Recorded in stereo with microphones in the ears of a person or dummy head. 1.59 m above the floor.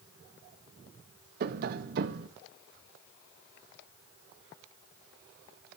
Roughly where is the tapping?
Right.